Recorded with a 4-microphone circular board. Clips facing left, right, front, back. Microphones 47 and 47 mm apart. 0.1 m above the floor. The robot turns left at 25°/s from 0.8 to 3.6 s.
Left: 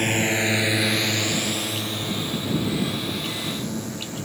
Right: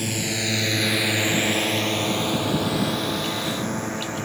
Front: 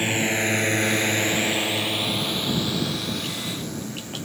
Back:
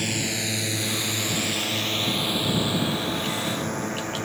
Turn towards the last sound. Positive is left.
turn(degrees=-140)